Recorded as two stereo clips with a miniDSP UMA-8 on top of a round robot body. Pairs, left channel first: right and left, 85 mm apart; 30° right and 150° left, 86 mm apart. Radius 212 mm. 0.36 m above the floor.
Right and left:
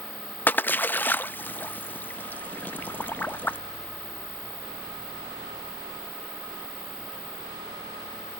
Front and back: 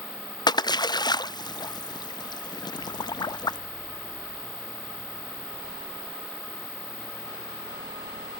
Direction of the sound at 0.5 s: 25° right.